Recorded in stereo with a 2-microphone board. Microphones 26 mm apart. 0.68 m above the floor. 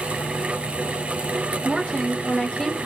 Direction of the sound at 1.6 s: 30° left (ahead or behind).